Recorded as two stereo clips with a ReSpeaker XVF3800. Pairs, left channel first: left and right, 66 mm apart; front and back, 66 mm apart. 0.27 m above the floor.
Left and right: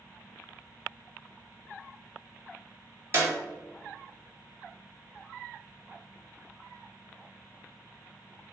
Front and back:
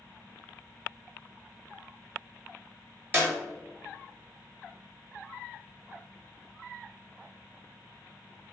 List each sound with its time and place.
3.1 s a clap: 130° right, 1.5 m